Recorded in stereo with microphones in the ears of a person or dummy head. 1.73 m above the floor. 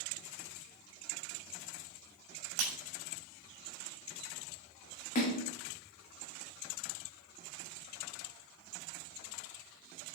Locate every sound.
2.6 s breaking glass: 75° right (ahead or behind), 5.5 m
5.2 s a splash: 40° left (ahead or behind), 1.9 m